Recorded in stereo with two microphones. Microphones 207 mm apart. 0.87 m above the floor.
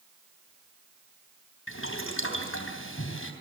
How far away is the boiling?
About 3 m.